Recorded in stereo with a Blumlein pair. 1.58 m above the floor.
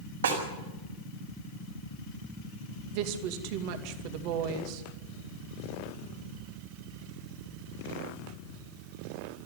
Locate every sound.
0.2 s a snare drum: 70° right, 5.5 m
2.9 s a woman speaking: 45° right, 2.5 m